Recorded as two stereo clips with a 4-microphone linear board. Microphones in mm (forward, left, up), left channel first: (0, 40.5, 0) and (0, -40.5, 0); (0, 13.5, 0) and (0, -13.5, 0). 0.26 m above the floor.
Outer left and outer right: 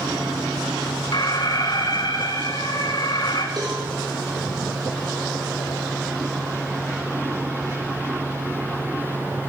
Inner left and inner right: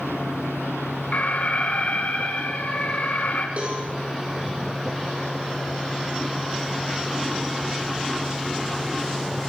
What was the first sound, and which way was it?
An alarm, 55° left (ahead or behind).